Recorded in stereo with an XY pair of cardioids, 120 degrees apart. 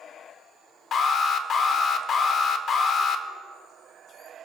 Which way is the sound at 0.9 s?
50° left.